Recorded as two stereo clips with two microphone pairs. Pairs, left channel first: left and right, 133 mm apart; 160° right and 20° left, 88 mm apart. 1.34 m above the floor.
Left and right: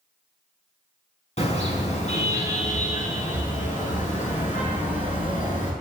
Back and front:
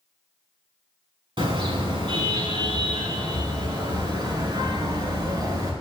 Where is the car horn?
50° left, 5 m; by 5.7 s 70° left, 7 m.